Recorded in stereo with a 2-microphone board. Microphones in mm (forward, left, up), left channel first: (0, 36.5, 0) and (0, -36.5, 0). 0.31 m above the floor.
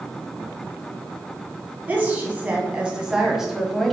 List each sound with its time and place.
1.9 s a woman speaking: 25° right (ahead or behind), 2 m; by 4.0 s 5° left (ahead or behind), 1.4 m